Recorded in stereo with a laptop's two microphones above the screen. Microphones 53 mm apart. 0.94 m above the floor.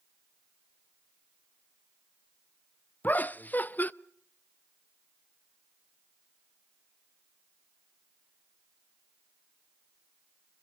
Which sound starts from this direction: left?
Laughter, at 3.0 s.